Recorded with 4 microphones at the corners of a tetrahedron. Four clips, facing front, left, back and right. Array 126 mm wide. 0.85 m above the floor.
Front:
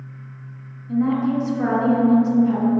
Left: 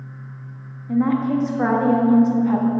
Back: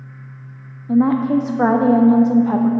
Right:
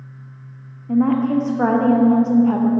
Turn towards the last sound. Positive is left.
turn(degrees=-165)